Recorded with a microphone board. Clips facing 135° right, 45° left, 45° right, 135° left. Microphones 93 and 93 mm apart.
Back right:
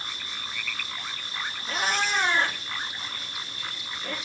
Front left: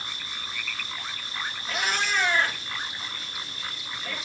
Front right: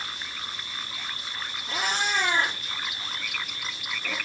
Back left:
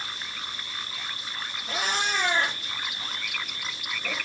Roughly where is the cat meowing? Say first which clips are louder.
Back right 1 dB, even; behind.